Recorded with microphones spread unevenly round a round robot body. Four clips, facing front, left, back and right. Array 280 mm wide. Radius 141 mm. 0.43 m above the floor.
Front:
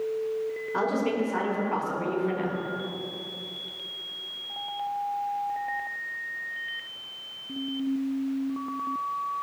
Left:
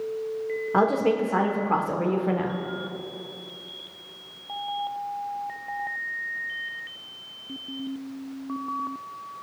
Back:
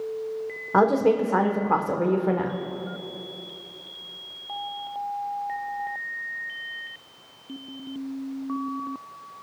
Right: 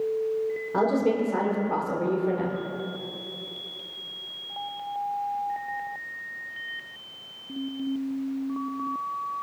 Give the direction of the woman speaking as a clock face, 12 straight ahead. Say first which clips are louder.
Left 2 dB, back 8 dB; 6 o'clock.